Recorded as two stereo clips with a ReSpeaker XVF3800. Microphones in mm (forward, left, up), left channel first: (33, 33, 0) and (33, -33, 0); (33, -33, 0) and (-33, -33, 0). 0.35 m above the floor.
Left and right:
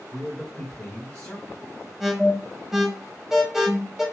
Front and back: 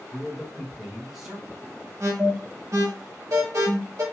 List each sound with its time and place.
0.1 s a man speaking: 115° left, 1.0 m
2.0 s an alarm: 175° right, 1.0 m